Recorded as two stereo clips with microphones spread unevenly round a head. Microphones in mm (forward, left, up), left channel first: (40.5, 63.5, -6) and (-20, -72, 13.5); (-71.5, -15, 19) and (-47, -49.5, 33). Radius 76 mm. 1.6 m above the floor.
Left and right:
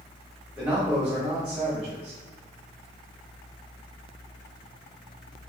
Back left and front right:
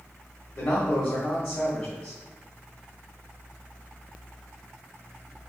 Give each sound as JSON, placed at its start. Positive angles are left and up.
{"t": 0.6, "sound": "a man speaking", "azimuth_deg": 160, "distance_m": 1.1}